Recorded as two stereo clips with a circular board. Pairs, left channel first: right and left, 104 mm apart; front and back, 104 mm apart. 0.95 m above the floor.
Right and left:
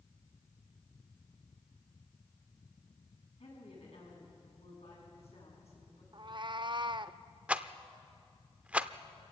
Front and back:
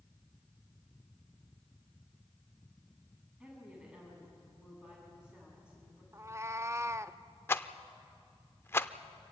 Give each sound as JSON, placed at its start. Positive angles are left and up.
{"t": 3.4, "sound": "a woman speaking", "azimuth_deg": -100, "distance_m": 8.0}
{"t": 6.1, "sound": "a cat meowing", "azimuth_deg": 120, "distance_m": 0.5}
{"t": 7.5, "sound": "a rattle", "azimuth_deg": 30, "distance_m": 0.6}